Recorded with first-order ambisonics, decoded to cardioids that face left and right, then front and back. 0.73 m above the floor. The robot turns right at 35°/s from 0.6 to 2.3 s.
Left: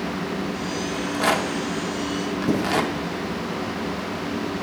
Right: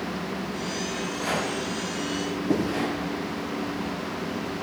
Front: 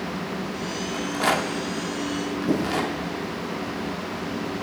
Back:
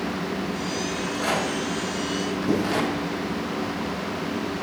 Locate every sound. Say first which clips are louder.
0.9 s a rattle: left 8 dB, front 4 dB; 35° left, 0.9 m; by 2.9 s 85° left, 0.9 m
2.5 s writing: left 1 dB, even; 90° left, 5.5 m